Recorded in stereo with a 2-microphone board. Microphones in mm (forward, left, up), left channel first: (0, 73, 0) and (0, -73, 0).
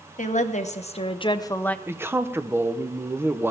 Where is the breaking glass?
No breaking glass in this recording.